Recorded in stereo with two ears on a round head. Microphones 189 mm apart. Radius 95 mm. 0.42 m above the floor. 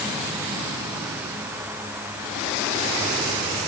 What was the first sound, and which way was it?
Only background noise.